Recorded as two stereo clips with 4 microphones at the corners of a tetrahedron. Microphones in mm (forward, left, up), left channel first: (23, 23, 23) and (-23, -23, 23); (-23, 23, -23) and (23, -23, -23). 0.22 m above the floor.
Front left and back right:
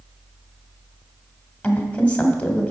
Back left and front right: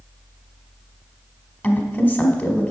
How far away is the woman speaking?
About 1.1 m.